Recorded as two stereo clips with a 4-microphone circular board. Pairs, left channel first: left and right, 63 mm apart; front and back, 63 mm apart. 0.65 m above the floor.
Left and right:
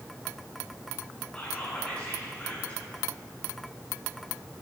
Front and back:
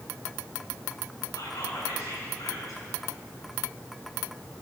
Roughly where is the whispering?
Ahead.